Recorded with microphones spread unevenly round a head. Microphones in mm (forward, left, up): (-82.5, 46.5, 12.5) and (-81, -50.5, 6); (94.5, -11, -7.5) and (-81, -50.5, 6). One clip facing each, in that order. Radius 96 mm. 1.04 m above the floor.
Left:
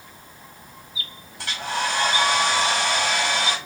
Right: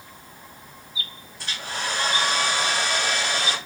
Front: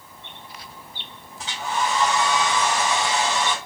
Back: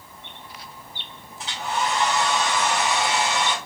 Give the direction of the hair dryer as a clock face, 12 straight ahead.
9 o'clock.